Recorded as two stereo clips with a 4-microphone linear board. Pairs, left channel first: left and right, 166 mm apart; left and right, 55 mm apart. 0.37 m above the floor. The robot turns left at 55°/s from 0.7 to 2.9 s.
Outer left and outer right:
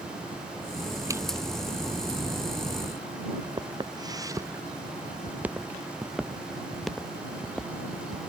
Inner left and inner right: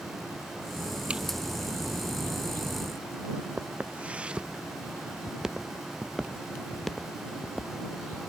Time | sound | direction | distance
1.1 | a zipper | 20° right (ahead or behind) | ?
3.6 | footsteps | 30° right (ahead or behind) | ?